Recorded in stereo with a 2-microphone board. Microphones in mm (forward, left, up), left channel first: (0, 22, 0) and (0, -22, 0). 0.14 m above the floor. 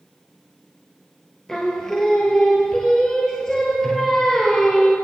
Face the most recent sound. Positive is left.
turn(degrees=15)  # may be behind; listen again after turning